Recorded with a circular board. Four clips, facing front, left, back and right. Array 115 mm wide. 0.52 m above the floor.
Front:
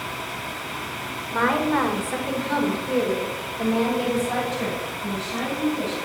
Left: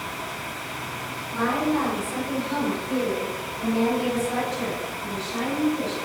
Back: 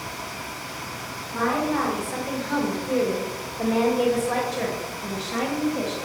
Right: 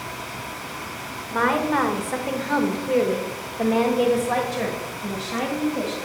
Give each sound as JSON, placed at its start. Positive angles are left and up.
{"t": 1.3, "sound": "a woman speaking", "azimuth_deg": -55, "distance_m": 1.8}